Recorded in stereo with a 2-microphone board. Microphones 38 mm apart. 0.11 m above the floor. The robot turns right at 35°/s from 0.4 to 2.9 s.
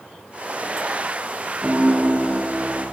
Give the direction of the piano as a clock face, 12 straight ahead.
5 o'clock.